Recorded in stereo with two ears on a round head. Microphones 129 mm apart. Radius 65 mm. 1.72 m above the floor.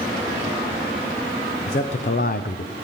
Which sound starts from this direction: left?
A man speaking, at 1.7 s.